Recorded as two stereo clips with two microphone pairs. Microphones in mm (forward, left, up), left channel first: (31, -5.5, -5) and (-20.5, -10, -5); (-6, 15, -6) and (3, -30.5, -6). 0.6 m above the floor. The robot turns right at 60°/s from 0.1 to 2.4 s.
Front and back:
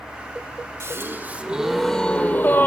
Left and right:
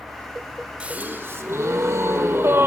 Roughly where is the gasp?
Behind right.